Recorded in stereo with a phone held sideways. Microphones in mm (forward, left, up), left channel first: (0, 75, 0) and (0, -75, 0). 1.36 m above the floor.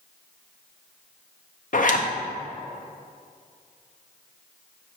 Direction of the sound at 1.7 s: 60° left (ahead or behind).